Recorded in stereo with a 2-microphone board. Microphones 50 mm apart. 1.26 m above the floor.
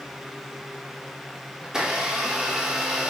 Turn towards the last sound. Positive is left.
turn(degrees=-15)  # may be behind; listen again after turning